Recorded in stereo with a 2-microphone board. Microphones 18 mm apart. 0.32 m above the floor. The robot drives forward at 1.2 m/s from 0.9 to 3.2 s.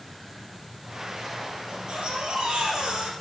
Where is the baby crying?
60° right (ahead or behind), 2.5 m; by 3.1 s 80° right, 2.5 m.